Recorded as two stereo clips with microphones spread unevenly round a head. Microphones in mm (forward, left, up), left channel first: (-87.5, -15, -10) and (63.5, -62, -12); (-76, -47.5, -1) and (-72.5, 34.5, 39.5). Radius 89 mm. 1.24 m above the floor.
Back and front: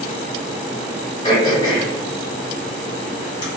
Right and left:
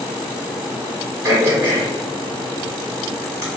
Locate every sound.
1.2 s throat clearing: 105° left, 1.7 m